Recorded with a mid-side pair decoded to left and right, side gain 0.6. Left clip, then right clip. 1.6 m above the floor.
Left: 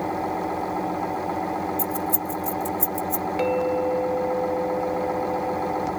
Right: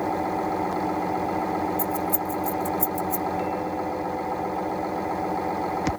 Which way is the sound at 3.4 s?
55° left.